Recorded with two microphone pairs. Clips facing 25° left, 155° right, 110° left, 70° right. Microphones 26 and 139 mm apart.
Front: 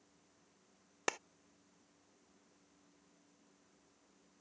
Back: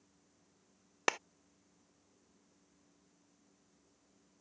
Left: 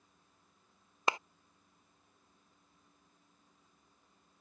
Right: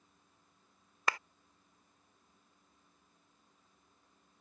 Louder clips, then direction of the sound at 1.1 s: Back 5 dB, left 3 dB; 165° left.